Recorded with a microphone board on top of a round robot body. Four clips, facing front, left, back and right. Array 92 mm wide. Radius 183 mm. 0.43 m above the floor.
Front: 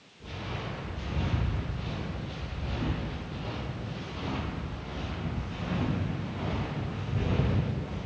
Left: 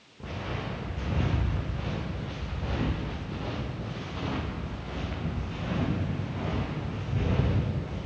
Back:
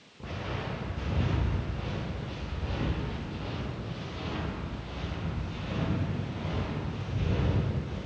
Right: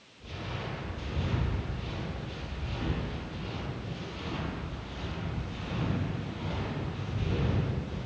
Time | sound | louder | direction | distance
0.2 | footsteps | left 4 dB, back 2 dB | 130° left | 3.5 m